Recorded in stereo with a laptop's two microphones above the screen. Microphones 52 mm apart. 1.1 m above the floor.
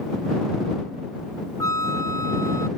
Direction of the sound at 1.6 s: 80° left.